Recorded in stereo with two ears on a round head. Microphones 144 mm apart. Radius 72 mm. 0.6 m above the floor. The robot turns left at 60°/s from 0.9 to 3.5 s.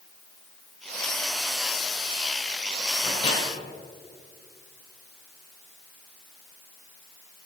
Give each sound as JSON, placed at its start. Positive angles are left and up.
{"t": 3.0, "sound": "a microwave", "side_deg": 50, "distance_m": 2.5}